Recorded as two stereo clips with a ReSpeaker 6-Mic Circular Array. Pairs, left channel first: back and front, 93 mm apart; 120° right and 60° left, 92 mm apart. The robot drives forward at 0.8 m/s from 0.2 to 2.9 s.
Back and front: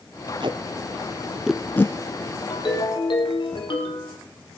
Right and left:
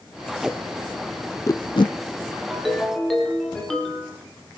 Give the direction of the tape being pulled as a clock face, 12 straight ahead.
1 o'clock.